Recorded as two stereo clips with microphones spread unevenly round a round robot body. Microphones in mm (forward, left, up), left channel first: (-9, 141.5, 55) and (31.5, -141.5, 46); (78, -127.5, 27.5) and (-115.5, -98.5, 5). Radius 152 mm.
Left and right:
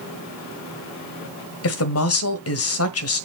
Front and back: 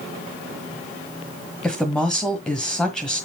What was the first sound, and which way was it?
A woman speaking, 80° left.